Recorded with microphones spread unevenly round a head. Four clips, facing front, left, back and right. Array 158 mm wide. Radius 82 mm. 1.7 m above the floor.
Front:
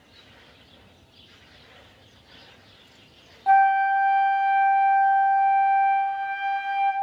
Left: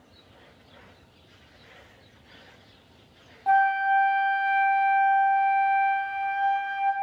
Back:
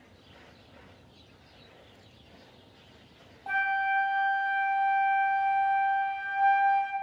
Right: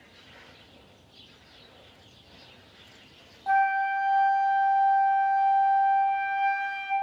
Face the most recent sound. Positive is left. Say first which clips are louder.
# left 3 dB, front 11 dB
turn(degrees=45)